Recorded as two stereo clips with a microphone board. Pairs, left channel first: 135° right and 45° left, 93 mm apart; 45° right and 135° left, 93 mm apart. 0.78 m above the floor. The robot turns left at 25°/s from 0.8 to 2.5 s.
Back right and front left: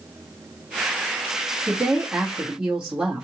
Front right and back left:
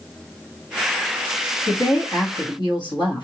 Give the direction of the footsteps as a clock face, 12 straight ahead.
I don't hear footsteps.